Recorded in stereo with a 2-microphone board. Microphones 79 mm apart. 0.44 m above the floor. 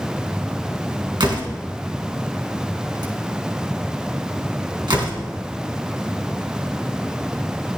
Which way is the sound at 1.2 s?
80° right.